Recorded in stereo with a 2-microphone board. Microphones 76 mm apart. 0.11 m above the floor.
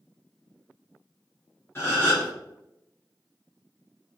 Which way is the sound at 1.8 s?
30° left (ahead or behind).